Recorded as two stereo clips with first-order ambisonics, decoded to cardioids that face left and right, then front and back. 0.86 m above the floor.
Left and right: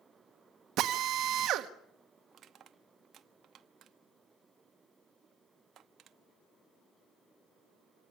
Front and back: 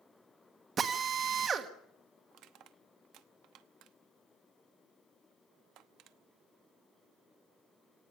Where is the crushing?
145° right, 0.9 m.